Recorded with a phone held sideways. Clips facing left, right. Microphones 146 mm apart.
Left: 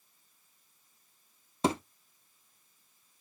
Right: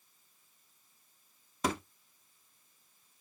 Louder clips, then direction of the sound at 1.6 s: Left 4 dB; 30° left (ahead or behind).